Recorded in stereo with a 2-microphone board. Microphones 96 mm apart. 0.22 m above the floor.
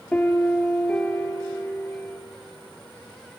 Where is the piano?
15° left (ahead or behind), 1.3 m.